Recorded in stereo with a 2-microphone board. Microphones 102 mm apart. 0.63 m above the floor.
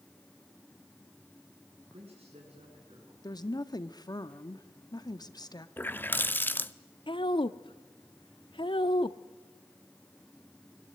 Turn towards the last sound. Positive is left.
turn(degrees=50)  # may be behind; listen again after turning